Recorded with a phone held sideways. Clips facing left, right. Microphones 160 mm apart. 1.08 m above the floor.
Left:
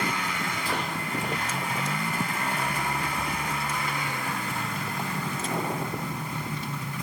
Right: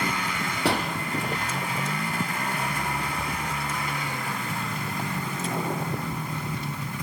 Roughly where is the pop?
Right.